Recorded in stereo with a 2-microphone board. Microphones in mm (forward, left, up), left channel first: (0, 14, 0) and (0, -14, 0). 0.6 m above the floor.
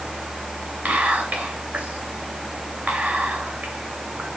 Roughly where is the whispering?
Right.